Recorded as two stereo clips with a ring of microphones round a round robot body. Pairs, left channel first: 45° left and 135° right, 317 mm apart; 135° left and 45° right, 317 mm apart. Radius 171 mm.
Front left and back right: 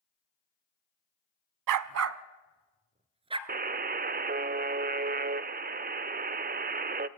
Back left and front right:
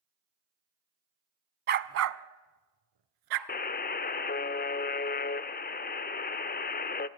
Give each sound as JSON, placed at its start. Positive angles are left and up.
{"t": 1.7, "sound": "a dog barking", "azimuth_deg": -105, "distance_m": 0.7}
{"t": 3.5, "sound": "a buzzer", "azimuth_deg": 180, "distance_m": 0.7}